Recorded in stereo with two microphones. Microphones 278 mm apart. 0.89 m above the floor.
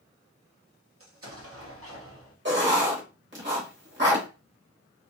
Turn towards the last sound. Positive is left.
turn(degrees=-40)  # may be behind; listen again after turning